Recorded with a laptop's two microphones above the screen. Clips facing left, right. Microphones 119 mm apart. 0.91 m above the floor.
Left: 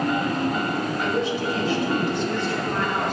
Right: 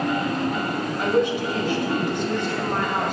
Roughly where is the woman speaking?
Right.